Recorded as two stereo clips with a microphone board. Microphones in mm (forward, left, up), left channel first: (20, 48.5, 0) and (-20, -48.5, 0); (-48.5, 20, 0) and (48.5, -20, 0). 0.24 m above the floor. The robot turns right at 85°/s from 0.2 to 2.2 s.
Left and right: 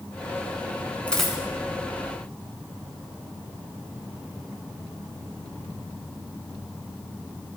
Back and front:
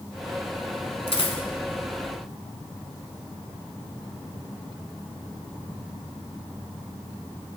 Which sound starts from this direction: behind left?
A dropped coin, at 1.1 s.